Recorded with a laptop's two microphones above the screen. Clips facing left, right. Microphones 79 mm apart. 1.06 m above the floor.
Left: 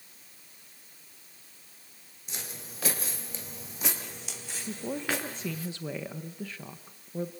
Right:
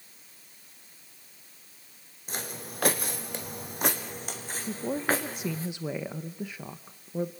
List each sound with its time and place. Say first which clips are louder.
2.3 s footsteps: right 6 dB; 50° right (ahead or behind), 2.5 m; by 5.7 s 35° right (ahead or behind), 4.5 m
4.7 s a woman speaking: right 4 dB; 15° right (ahead or behind), 0.7 m